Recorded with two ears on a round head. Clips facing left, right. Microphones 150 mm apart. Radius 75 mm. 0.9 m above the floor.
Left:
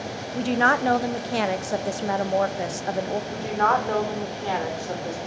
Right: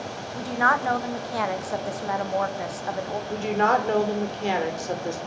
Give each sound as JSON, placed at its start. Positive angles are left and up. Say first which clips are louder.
{"t": 0.3, "sound": "a woman speaking", "louder": "left 3 dB", "side_deg": 30, "distance_m": 0.9}
{"t": 3.3, "sound": "a woman speaking", "louder": "right 2 dB", "side_deg": -25, "distance_m": 2.5}